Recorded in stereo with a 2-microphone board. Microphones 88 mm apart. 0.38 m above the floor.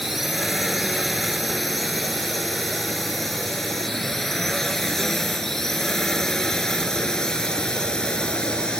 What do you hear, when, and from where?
0.0 s a drone: centre (ahead or behind); by 8.8 s 10° left (ahead or behind)